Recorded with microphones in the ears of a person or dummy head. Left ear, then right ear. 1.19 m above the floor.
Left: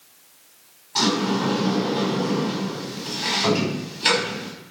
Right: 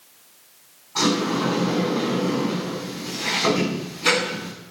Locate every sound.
0.9 s a sliding door: 80° left, 6 m